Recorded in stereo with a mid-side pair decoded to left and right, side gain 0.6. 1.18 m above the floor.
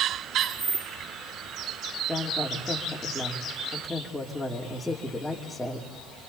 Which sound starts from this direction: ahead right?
Keys jangling, at 0.4 s.